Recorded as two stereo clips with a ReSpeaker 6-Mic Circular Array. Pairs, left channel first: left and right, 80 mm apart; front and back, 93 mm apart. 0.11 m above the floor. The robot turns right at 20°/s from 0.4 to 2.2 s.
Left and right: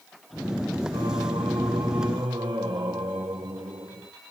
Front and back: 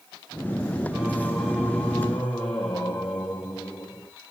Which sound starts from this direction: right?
Singing, at 0.9 s.